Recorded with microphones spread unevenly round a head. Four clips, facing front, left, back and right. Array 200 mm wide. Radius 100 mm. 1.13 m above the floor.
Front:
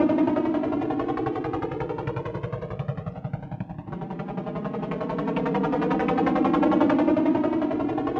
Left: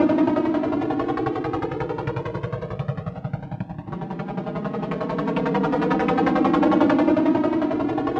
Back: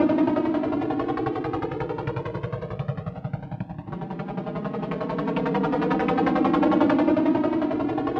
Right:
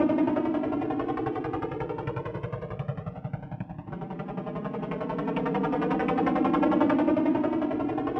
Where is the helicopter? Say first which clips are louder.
Left 5 dB, back 1 dB; 95° left.